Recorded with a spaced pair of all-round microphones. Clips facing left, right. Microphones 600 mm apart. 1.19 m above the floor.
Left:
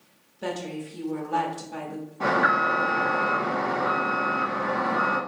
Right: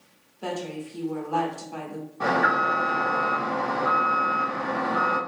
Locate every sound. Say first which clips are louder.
0.4 s a woman speaking: even; 45° left (ahead or behind), 0.7 m
2.2 s an alarm: even; 5° right (ahead or behind), 0.8 m